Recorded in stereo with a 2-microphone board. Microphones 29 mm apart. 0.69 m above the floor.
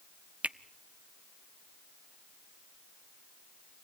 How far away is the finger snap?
About 0.7 m.